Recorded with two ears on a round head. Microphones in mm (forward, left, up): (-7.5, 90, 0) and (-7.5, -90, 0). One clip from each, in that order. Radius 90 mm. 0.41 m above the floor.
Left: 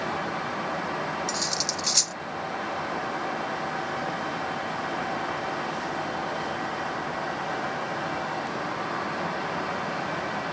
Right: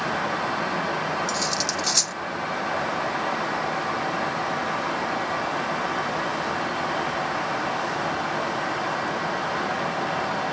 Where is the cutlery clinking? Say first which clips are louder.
Right 3 dB; centre (ahead or behind).